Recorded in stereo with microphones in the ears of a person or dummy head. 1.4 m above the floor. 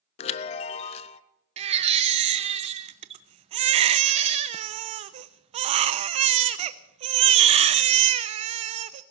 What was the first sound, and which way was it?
A chime, 35° left (ahead or behind).